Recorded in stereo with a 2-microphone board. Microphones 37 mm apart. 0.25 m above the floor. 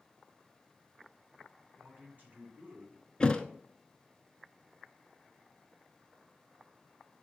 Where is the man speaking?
50° right (ahead or behind), 3 m.